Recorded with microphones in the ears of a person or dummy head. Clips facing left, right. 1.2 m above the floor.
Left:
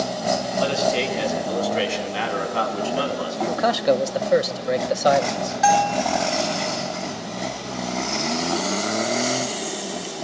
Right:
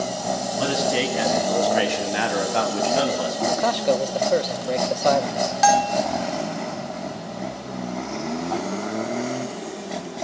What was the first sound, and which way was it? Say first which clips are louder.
A man speaking: even; 85° right.